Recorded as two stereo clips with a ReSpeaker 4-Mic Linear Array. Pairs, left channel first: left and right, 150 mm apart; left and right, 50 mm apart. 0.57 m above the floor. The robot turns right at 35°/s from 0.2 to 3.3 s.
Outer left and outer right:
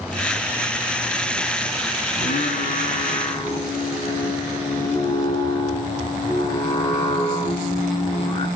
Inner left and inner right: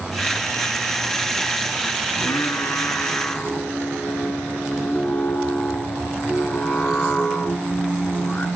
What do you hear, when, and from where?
2.1 s singing: 105° left, 2.0 m; by 8.5 s 145° left, 2.0 m